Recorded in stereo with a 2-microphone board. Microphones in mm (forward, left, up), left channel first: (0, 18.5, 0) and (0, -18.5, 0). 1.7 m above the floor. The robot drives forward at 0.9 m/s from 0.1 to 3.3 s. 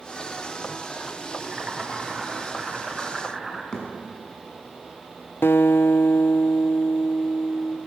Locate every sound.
1.4 s boiling: 25° right (ahead or behind), 2.0 m; by 3.6 s 15° right (ahead or behind), 3 m
3.7 s a thud: 20° left (ahead or behind), 5.5 m
5.4 s a guitar: 75° left (ahead or behind), 0.5 m